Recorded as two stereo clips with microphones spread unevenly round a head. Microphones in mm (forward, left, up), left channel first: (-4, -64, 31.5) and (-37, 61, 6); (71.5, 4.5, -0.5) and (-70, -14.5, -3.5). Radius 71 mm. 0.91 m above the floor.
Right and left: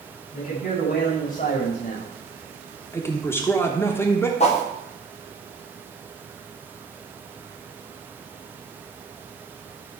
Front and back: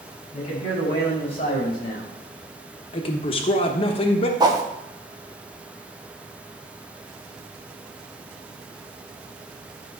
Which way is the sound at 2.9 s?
Straight ahead.